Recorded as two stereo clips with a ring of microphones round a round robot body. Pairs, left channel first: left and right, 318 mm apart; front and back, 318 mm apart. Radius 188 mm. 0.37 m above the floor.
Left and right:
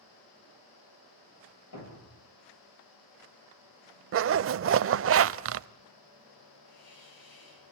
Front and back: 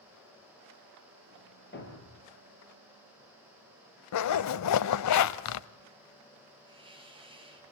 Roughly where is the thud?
Ahead left.